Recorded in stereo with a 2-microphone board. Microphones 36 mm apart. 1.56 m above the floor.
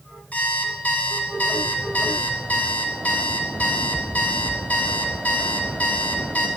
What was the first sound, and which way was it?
An alarm clock, 50° left (ahead or behind).